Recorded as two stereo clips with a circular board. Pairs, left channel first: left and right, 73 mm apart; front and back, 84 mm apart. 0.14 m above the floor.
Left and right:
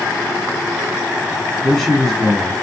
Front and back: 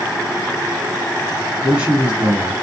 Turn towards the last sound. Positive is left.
turn(degrees=165)